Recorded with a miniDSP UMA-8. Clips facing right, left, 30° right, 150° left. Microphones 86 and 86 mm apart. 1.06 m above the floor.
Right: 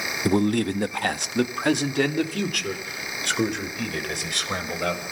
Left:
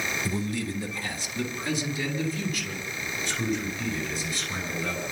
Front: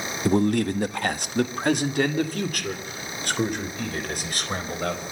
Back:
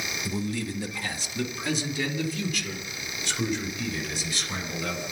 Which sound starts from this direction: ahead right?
A man speaking, at 0.2 s.